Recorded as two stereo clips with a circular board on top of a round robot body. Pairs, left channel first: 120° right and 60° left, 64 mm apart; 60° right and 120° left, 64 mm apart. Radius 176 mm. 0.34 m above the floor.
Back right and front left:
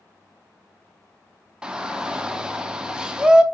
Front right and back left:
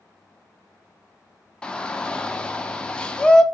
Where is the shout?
Straight ahead, 0.9 m.